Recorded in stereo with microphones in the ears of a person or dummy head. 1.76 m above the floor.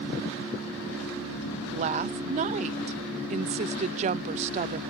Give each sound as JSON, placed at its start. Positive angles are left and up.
{"t": 1.7, "sound": "a woman speaking", "side_deg": -30}